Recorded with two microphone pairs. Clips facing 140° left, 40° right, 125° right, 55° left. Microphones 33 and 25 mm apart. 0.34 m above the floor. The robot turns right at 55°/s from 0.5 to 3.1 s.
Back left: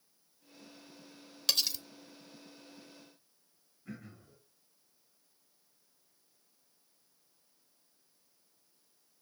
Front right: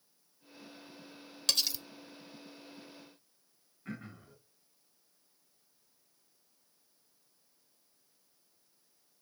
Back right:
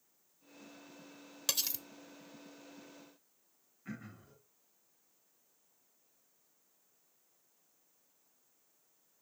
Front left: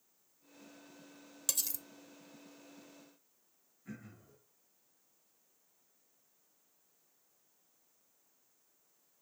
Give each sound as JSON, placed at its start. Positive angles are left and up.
{"t": 1.5, "sound": "cutlery clinking", "azimuth_deg": -145, "distance_m": 0.7}
{"t": 3.9, "sound": "throat clearing", "azimuth_deg": -75, "distance_m": 3.0}